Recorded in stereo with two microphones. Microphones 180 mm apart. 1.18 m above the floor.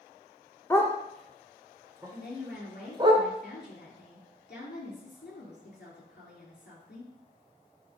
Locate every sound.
0.7 s a dog barking: 15° left (ahead or behind), 0.9 m; by 3.1 s 30° right (ahead or behind), 1.7 m
2.1 s a woman speaking: 70° left (ahead or behind), 3 m